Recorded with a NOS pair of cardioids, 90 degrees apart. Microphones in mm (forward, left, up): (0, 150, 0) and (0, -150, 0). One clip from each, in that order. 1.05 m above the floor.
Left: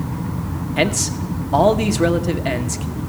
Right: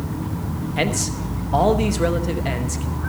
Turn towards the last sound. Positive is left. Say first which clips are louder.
# left 4 dB
turn(degrees=15)